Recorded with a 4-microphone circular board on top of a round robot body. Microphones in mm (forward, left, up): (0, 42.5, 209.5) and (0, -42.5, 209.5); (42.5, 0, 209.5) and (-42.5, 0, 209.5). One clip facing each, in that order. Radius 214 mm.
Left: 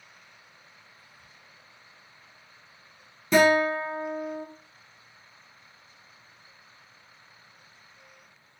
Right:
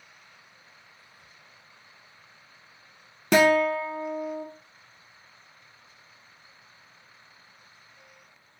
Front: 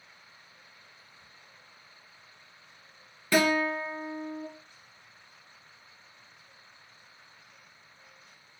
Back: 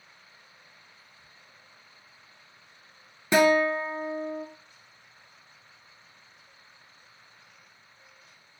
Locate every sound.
1.0 s whispering: 85° right, 1.7 m
3.3 s a guitar: 110° right, 0.6 m